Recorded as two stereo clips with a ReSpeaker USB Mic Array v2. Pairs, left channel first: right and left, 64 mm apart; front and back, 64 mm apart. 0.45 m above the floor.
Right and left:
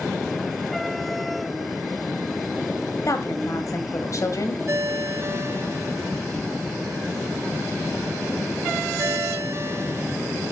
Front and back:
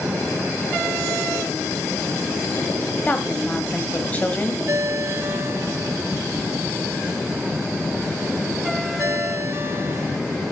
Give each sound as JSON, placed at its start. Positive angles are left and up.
{"t": 3.0, "sound": "a woman speaking", "azimuth_deg": -65, "distance_m": 1.9}
{"t": 4.7, "sound": "a ringtone", "azimuth_deg": 135, "distance_m": 1.0}